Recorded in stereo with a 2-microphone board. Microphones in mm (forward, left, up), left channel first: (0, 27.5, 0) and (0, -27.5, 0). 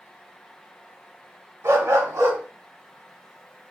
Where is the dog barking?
60° right (ahead or behind), 0.9 m.